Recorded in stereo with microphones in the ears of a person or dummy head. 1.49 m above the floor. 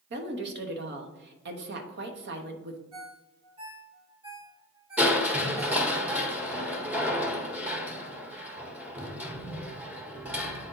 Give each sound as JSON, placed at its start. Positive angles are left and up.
{"t": 0.1, "sound": "a woman speaking", "side_deg": -60, "distance_m": 1.2}
{"t": 2.9, "sound": "a ringtone", "side_deg": -30, "distance_m": 0.9}
{"t": 5.0, "sound": "crushing", "side_deg": 0, "distance_m": 1.5}